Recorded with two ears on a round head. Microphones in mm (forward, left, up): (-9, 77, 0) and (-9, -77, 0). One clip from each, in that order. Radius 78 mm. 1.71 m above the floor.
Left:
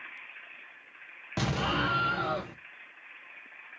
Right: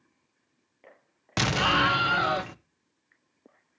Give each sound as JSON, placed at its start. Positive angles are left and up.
{"t": 1.4, "sound": "an explosion", "side_deg": -50, "distance_m": 0.8}